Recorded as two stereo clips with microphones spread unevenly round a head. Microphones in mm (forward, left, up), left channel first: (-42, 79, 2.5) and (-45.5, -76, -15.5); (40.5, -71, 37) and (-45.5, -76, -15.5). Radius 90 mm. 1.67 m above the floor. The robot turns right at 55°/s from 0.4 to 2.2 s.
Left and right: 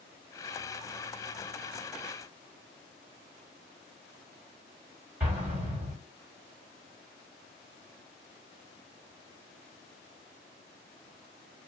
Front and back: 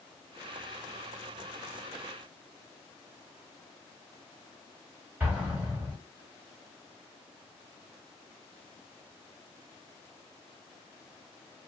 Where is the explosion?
15° right, 1.5 m.